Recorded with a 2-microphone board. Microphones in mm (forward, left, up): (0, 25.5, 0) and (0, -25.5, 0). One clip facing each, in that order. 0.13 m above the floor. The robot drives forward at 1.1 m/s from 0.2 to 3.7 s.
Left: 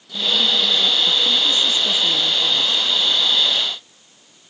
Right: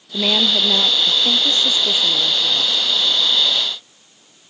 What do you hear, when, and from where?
0.1 s a woman speaking: 65° right (ahead or behind); by 2.9 s 35° right (ahead or behind)